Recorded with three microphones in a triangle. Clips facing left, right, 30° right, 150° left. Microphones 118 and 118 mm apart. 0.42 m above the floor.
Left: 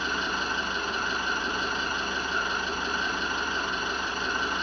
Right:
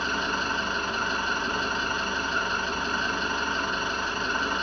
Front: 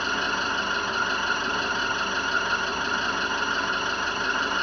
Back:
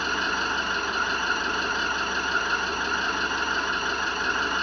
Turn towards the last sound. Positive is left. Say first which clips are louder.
# right 2 dB, even
turn(degrees=-65)